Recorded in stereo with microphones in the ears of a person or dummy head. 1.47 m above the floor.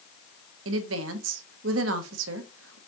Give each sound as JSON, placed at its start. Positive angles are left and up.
{"t": 0.7, "sound": "a woman speaking", "side_deg": -75, "distance_m": 0.8}